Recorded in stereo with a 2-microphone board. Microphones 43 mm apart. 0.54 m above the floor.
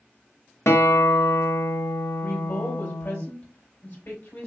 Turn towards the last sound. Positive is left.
turn(degrees=65)  # may be behind; listen again after turning